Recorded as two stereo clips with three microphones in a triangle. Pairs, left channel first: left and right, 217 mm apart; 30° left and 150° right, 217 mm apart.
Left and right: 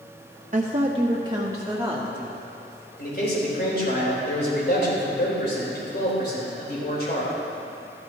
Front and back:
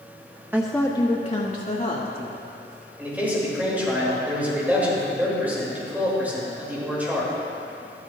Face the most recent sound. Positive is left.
turn(degrees=130)